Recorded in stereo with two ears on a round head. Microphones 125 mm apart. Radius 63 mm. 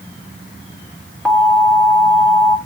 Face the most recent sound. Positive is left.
turn(degrees=0)  # may be behind; listen again after turning